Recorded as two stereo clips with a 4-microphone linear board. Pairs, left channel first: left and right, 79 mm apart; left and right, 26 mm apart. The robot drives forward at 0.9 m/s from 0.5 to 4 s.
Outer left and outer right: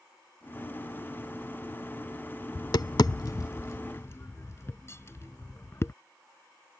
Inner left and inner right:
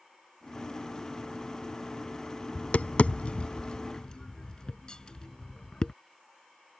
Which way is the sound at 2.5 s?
60° left (ahead or behind).